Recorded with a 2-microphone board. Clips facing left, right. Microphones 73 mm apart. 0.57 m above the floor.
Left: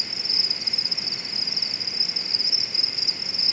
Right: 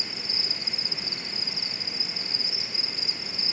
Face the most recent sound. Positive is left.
turn(degrees=-45)  # may be behind; listen again after turning